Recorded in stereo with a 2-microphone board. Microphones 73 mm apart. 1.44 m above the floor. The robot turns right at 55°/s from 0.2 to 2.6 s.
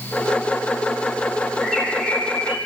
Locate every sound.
1.6 s a bird: 10° right, 7 m; by 2.6 s 40° left, 7 m